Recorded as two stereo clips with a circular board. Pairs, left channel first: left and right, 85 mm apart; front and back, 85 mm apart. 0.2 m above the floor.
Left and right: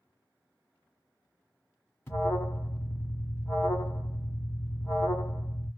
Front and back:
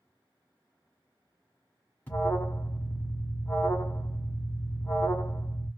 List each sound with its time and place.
2.1 s an alarm: 50° left, 1.5 m